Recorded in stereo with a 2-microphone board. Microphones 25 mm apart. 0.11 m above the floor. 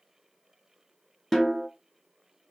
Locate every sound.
1.3 s a snare drum: 10° left (ahead or behind), 0.9 m